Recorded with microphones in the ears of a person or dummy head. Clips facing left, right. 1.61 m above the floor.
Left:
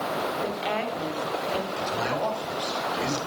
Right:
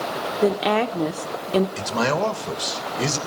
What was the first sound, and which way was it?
A woman speaking, 75° right (ahead or behind).